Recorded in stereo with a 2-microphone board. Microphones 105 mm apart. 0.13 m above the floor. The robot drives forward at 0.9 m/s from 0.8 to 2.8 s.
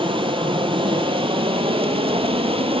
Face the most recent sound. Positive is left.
turn(degrees=-65)  # may be behind; listen again after turning